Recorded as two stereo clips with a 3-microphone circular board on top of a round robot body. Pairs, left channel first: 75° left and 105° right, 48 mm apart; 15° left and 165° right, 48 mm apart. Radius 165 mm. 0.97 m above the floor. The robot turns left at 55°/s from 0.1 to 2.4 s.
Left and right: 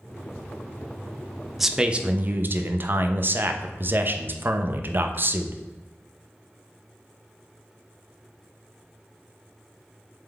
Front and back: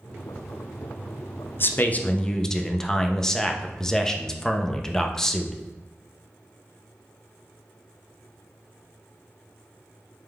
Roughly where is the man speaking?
Ahead.